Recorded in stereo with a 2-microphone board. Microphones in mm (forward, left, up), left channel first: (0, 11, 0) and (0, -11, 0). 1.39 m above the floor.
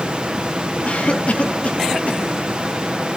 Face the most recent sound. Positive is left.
turn(degrees=80)